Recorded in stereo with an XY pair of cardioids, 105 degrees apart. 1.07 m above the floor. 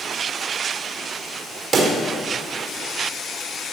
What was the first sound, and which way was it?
A pop, 45° right.